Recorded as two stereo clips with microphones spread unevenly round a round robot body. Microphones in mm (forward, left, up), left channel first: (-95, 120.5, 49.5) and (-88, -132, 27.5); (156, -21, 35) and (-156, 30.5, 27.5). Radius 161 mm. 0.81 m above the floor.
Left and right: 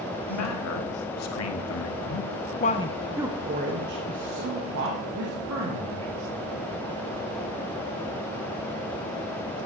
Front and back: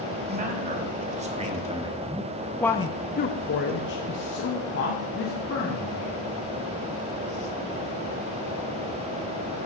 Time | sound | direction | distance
0.3 | a man speaking | 105° left | 1.7 m